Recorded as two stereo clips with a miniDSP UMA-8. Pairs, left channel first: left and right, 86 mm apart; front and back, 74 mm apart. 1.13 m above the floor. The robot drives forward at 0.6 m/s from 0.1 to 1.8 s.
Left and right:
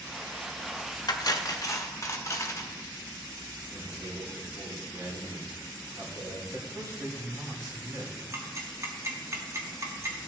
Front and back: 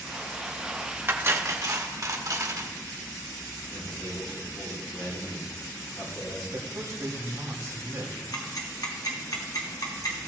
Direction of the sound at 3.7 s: 30° right.